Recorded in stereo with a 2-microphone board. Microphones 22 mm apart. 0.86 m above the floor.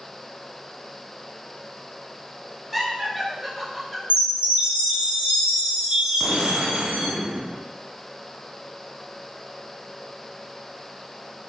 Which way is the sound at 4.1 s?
80° right.